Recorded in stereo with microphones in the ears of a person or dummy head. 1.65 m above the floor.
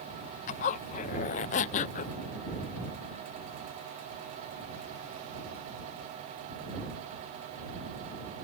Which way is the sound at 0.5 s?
45° left (ahead or behind).